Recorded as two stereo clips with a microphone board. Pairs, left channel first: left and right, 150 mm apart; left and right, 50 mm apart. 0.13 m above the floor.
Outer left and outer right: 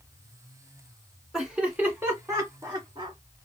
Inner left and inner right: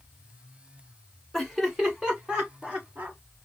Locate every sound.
1.3 s laughter: centre (ahead or behind), 1.7 m; by 3.2 s 35° right (ahead or behind), 1.9 m